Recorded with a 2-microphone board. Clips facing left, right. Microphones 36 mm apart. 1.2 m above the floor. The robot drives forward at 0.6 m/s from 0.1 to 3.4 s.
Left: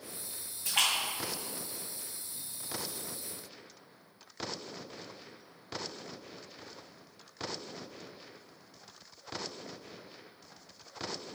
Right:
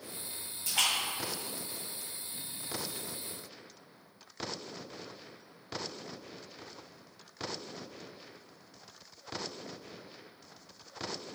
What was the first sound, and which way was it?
A splash, 70° left (ahead or behind).